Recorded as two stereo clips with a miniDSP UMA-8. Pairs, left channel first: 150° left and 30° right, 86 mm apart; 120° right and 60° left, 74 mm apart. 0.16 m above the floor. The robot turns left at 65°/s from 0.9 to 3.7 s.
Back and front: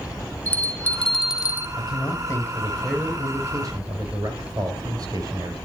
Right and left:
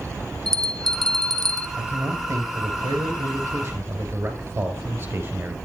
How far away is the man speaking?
About 3 m.